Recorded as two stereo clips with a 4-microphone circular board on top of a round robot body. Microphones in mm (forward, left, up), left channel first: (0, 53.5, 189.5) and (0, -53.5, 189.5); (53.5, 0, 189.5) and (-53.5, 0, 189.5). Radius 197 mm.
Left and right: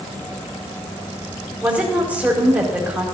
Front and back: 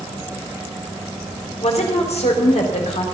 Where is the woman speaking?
10° right, 4 m.